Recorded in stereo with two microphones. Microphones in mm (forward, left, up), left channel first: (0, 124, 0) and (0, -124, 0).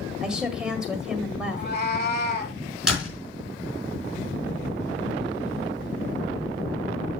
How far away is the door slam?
About 4 m.